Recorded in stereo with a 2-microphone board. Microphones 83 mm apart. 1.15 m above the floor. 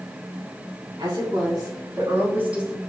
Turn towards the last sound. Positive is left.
turn(degrees=-5)  # may be behind; listen again after turning